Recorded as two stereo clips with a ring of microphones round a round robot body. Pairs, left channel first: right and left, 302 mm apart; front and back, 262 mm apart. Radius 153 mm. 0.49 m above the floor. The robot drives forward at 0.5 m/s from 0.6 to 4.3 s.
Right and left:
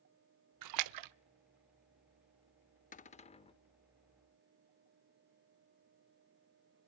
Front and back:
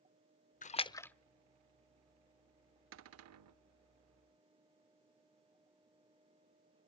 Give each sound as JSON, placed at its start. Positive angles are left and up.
{"t": 0.6, "sound": "a splash", "azimuth_deg": 60, "distance_m": 0.7}
{"t": 2.9, "sound": "a cupboard door", "azimuth_deg": -150, "distance_m": 0.6}